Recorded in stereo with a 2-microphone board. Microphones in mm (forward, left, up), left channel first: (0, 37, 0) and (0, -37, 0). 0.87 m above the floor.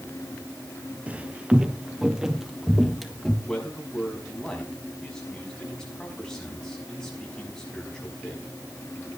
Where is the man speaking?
10° left (ahead or behind), 5.5 m.